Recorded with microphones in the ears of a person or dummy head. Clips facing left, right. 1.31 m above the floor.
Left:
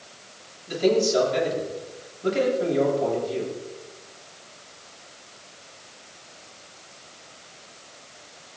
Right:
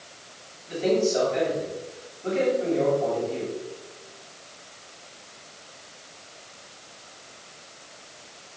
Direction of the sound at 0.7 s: 50° left (ahead or behind).